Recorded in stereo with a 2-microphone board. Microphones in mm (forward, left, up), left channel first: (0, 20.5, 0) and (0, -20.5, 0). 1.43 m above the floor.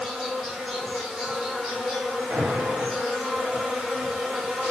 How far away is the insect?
About 1.1 m.